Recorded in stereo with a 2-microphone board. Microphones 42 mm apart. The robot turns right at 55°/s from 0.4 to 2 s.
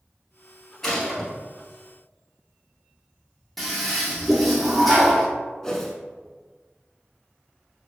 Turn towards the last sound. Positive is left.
turn(degrees=15)  # may be behind; listen again after turning